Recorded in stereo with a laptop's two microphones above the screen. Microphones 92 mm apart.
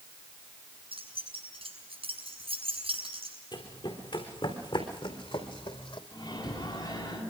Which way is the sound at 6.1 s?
55° left (ahead or behind).